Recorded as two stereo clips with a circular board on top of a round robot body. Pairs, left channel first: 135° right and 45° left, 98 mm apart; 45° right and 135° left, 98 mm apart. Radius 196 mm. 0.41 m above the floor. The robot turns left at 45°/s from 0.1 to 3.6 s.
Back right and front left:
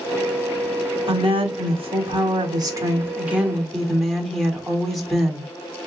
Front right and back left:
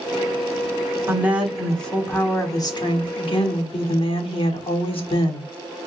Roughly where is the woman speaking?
Left.